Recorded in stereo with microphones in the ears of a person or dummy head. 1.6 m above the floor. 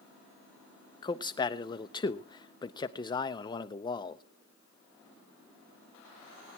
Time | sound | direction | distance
1.0 | a man speaking | 25° left (ahead or behind) | 0.8 m